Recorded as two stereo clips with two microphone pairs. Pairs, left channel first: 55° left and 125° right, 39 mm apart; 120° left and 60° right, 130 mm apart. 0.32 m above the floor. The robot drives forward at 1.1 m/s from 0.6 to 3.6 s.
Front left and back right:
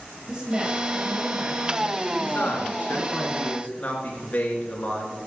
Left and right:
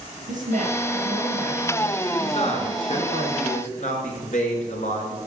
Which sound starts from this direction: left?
A man speaking, at 2.2 s.